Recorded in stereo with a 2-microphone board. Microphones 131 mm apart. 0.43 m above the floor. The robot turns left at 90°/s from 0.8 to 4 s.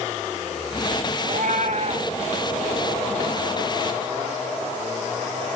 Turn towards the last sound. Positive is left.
turn(degrees=40)